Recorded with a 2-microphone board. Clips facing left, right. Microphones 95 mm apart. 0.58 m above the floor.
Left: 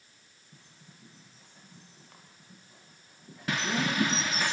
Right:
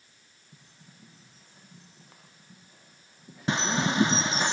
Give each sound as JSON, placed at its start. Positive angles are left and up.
{"t": 0.5, "sound": "a bird", "side_deg": 0, "distance_m": 9.5}
{"t": 3.5, "sound": "a bird", "side_deg": -25, "distance_m": 0.8}